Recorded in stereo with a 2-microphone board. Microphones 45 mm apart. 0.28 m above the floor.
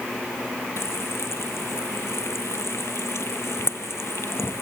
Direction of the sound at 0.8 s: 65° left (ahead or behind).